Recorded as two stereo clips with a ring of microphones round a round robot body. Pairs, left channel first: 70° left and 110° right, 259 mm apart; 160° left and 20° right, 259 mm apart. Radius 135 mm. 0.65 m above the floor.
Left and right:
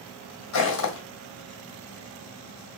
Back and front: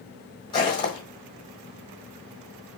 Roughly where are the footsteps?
Left.